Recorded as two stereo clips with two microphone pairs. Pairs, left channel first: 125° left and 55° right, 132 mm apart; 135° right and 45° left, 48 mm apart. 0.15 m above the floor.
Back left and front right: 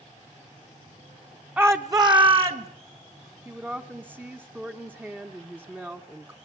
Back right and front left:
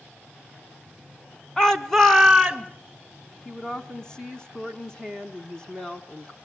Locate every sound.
1.6 s a shout: 100° right, 1.1 m; by 2.7 s 35° right, 1.7 m
3.5 s a woman speaking: 100° right, 1.2 m